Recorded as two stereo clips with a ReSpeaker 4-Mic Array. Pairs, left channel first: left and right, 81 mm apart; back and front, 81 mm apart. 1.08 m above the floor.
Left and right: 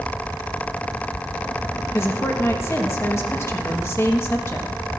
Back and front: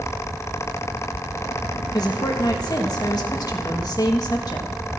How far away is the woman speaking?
About 1.3 m.